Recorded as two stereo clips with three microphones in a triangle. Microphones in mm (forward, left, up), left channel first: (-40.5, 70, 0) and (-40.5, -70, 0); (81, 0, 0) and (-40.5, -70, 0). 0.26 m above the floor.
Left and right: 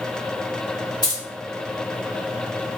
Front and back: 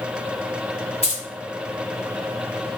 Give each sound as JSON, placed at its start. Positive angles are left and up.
{"t": 1.0, "sound": "keys jangling", "azimuth_deg": 40, "distance_m": 1.2}